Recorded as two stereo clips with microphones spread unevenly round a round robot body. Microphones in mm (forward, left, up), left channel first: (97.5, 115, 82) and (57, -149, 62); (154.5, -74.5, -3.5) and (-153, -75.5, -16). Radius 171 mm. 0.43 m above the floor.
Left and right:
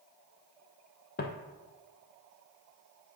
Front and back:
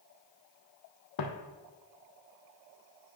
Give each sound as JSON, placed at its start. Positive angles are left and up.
{"t": 1.2, "sound": "footsteps", "azimuth_deg": 30, "distance_m": 1.1}